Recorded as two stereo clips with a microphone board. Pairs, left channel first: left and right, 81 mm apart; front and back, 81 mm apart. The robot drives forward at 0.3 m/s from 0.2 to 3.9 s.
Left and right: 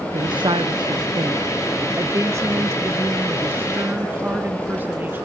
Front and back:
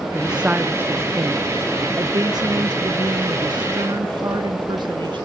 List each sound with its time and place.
0.1 s a woman speaking: 95° right, 0.5 m; by 5.2 s 155° right, 1.3 m